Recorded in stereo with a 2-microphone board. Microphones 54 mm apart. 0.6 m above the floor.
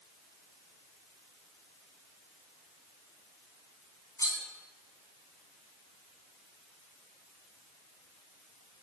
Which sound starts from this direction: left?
Cutlery clinking, at 4.2 s.